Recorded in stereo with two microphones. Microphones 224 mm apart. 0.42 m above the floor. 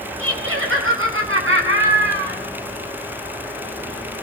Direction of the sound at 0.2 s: 80° right.